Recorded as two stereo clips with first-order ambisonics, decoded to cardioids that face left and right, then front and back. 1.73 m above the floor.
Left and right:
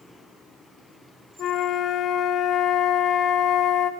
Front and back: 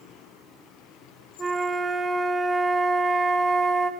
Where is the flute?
110° left, 0.5 m.